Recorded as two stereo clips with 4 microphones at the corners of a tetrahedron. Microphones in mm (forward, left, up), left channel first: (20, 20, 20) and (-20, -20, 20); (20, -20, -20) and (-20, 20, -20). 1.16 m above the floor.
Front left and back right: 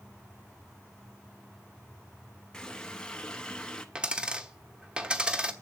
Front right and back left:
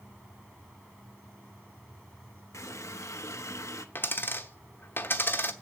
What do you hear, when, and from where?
2.5 s a running tap: 30° right, 0.9 m
4.0 s a dropped coin: 70° right, 0.9 m